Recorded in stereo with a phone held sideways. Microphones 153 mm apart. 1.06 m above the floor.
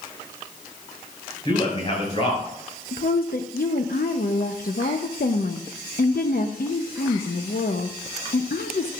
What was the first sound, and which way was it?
A man speaking, 35° left (ahead or behind).